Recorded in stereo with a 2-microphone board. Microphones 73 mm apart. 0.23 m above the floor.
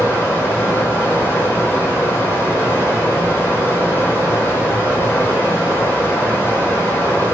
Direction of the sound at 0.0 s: 30° left (ahead or behind).